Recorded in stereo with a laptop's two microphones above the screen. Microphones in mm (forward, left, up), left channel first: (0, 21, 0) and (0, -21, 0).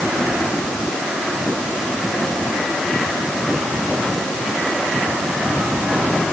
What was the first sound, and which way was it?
Only background noise.